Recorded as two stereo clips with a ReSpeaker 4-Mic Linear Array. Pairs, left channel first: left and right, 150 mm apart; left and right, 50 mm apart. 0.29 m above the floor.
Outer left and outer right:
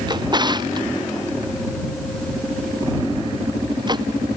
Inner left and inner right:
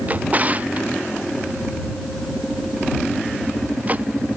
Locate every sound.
0.1 s a drawer: 30° right (ahead or behind)